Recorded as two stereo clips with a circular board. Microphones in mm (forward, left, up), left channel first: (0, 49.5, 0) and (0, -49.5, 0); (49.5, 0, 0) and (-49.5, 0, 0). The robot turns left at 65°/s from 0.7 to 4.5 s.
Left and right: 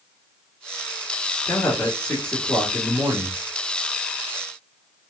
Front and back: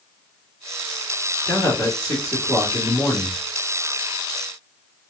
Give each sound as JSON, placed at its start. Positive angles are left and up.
{"t": 1.5, "sound": "a man speaking", "azimuth_deg": 60, "distance_m": 1.3}